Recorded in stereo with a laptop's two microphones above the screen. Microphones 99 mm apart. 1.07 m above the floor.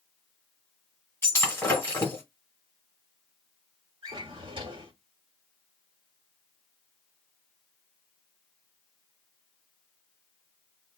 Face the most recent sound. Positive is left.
turn(degrees=-60)  # may be behind; listen again after turning